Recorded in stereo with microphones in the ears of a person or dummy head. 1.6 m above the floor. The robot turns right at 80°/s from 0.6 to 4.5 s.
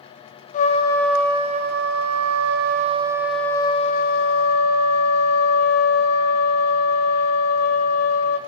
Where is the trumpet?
140° left, 0.6 m; by 8.4 s 90° left, 0.6 m.